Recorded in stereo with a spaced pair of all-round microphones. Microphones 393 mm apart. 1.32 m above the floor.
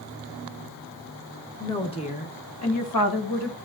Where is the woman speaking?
5° left (ahead or behind), 1.9 m; by 3.6 s 80° left, 1.4 m.